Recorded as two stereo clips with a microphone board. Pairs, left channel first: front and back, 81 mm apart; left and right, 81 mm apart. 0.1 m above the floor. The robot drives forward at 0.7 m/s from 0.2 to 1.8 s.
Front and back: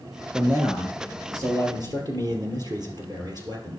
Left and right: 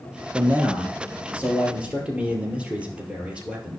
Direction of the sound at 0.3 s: 140° right.